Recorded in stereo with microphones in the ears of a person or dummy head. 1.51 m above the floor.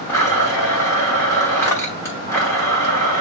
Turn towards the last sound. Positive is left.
turn(degrees=15)  # may be behind; listen again after turning